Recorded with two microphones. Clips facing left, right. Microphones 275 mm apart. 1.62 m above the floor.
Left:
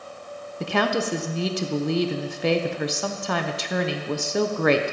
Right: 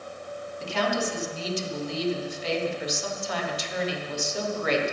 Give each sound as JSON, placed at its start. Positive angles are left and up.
{"t": 0.6, "sound": "a woman speaking", "side_deg": 70, "distance_m": 1.0}